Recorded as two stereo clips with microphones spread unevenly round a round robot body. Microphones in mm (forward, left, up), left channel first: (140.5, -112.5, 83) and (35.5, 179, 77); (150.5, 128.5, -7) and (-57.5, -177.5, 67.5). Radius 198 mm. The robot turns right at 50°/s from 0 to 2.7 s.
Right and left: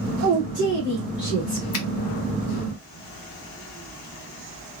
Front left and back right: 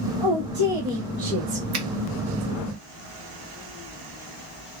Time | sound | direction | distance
0.2 | a woman speaking | 175° left | 1.9 m
1.7 | a finger snap | 80° right | 0.8 m